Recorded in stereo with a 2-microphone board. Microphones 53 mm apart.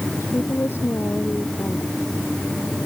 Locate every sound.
0.2 s a woman speaking: 50° left (ahead or behind); by 1.9 s 45° left (ahead or behind)